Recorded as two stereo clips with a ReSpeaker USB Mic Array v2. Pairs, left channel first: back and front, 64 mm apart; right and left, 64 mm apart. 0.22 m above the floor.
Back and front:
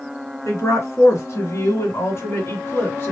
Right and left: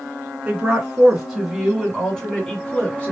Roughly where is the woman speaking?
Behind.